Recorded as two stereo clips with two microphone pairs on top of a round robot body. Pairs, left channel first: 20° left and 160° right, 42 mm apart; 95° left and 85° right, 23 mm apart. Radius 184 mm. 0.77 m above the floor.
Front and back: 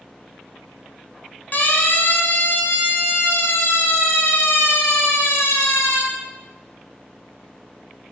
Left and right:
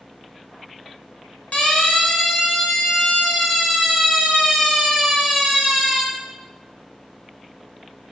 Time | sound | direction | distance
1.5 | a siren | 65° left | 4 m